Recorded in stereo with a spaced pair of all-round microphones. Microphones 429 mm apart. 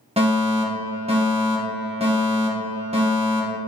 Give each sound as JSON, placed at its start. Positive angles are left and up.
{"t": 0.2, "sound": "a fire alarm", "side_deg": -15, "distance_m": 1.7}